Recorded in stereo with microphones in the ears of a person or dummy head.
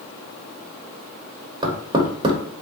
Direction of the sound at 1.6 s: 25° right (ahead or behind).